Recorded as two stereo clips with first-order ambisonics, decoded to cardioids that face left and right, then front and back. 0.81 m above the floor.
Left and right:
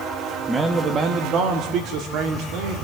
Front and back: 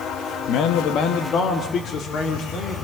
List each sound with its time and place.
0.5 s a man speaking: 15° right, 1.3 m; by 2.8 s 65° right, 3 m